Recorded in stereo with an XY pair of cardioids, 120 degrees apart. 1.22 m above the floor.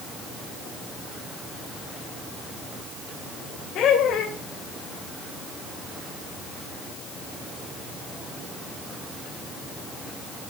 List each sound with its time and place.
3.8 s laughter: 70° left, 3 m